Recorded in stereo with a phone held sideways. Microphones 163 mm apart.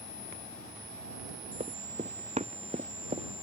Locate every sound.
1.6 s running footsteps: 45° right (ahead or behind)